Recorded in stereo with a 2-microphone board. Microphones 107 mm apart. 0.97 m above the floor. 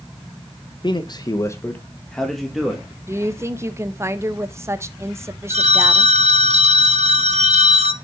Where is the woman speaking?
25° right (ahead or behind), 0.7 m.